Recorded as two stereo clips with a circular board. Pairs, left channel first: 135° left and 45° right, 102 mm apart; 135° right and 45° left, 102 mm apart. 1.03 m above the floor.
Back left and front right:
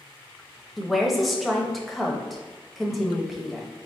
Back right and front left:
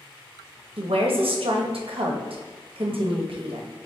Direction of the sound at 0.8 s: 45° left.